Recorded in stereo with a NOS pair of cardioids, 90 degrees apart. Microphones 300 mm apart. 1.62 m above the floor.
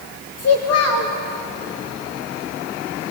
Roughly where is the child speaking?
Ahead left.